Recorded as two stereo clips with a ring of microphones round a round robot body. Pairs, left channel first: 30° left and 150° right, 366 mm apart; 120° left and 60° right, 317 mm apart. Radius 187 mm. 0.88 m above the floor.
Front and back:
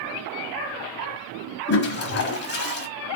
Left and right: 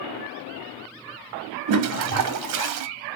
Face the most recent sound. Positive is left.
turn(degrees=-35)